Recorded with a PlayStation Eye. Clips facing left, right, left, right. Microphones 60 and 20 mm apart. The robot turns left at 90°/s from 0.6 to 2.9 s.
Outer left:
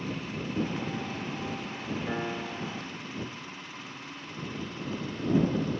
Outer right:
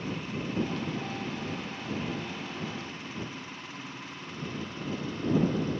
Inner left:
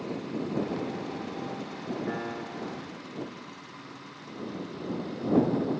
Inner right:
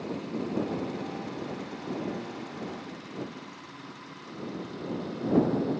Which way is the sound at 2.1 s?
130° left.